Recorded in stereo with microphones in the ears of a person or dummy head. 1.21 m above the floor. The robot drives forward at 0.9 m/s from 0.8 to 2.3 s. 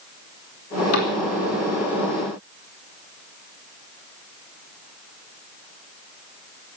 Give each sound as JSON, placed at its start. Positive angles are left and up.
{"t": 0.9, "sound": "a cupboard door", "side_deg": 85, "distance_m": 4.0}